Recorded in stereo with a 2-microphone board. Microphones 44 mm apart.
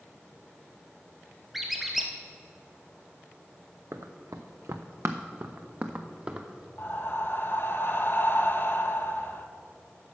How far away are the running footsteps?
About 1.0 m.